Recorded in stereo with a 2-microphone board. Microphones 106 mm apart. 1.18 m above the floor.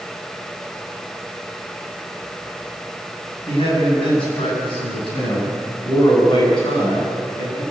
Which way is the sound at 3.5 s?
60° left (ahead or behind).